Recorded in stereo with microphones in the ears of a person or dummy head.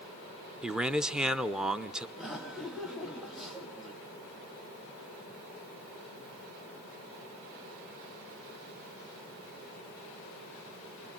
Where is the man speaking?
5° right (ahead or behind), 0.6 m.